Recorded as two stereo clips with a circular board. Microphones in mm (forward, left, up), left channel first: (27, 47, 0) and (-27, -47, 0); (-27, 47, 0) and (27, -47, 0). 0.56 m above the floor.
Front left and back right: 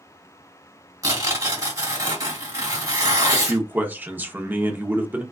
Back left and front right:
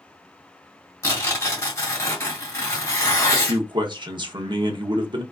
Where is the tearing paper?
Straight behind, 1.8 m.